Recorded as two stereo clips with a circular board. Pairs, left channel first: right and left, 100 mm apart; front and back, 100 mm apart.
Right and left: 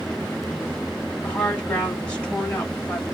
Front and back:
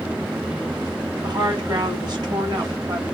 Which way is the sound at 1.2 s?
165° right.